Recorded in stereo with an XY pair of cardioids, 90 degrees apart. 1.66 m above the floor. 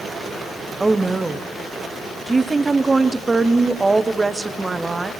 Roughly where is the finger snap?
I don't hear a finger snap.